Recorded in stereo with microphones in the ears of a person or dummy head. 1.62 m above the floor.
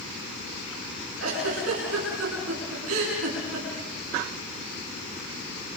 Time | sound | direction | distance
1.2 | a giggle | 85° right | 8 m